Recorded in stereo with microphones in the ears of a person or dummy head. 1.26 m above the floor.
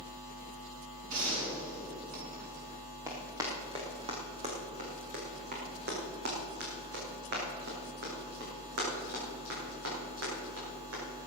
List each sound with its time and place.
1.1 s a gunshot: 50° right (ahead or behind), 6 m
3.1 s running footsteps: 15° right (ahead or behind), 3 m; by 11.3 s 75° right (ahead or behind), 9 m